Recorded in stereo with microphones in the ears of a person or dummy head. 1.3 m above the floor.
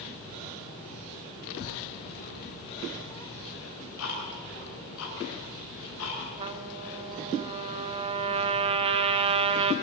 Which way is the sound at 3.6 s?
75° left (ahead or behind).